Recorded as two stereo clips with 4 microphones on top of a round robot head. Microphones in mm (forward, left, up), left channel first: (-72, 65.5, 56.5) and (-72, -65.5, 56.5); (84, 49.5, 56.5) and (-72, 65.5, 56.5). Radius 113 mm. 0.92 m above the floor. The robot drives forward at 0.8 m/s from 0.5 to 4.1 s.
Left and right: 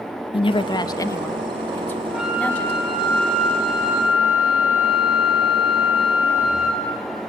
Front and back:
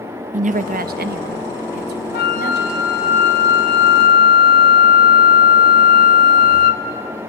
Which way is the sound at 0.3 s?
140° left.